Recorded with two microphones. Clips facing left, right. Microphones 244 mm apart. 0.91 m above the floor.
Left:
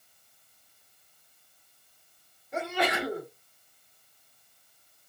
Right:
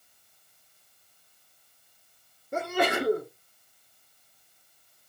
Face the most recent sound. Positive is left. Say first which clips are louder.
# right 3 dB
turn(degrees=-45)  # may be behind; listen again after turning